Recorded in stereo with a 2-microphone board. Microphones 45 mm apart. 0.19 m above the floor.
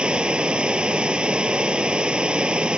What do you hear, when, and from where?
0.0 s running water: 20° right (ahead or behind)